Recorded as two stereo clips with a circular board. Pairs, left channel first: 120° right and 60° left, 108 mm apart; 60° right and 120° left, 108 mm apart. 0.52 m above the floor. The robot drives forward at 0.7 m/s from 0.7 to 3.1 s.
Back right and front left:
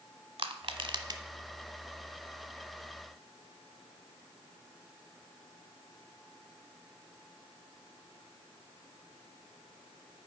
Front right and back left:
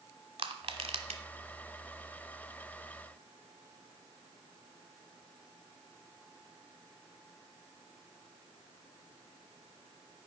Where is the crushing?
90° left, 1.0 m; by 1.2 s 110° left, 1.1 m.